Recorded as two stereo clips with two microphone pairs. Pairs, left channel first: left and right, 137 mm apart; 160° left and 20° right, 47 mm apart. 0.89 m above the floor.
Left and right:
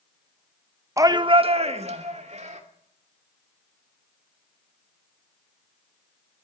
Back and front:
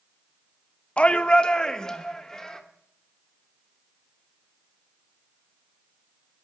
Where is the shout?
145° right, 0.8 m; by 2.6 s 120° right, 2.5 m.